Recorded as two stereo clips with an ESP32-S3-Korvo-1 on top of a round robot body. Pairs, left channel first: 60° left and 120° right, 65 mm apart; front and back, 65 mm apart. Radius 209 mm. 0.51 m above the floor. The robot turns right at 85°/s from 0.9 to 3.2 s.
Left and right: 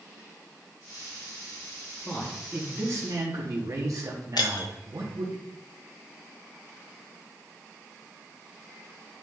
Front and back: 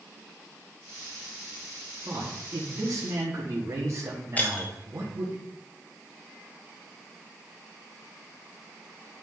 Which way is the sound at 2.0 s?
125° left.